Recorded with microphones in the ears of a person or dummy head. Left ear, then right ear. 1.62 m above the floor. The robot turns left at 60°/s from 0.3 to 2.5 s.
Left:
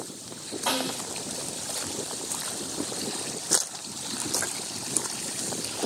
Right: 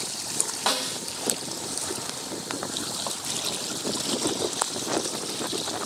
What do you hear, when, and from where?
0.7 s a snare drum: 65° right (ahead or behind), 1.2 m